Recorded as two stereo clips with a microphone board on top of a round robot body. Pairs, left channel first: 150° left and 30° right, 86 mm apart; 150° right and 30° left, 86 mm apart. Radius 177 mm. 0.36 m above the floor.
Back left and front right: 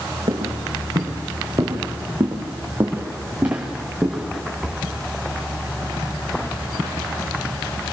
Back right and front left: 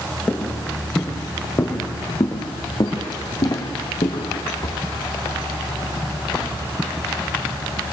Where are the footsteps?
70° right, 3 m; by 4.8 s 120° right, 3 m.